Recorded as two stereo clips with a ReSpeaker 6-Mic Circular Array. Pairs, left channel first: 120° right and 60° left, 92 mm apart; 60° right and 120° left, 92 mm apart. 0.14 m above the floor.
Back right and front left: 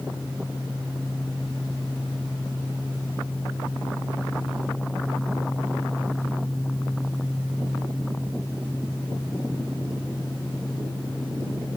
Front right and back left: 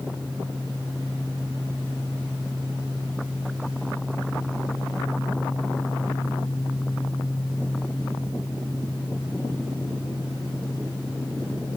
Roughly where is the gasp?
I don't hear a gasp.